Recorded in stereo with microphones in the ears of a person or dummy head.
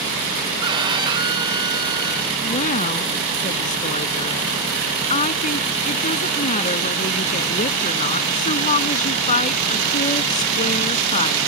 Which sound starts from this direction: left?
A woman speaking, at 2.4 s.